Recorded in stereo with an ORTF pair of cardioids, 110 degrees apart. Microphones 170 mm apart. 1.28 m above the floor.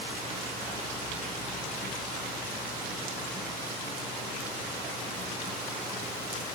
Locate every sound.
Only background noise.